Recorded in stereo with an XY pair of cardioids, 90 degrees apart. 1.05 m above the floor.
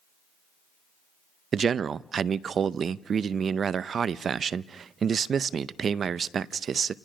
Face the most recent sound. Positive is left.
turn(degrees=-55)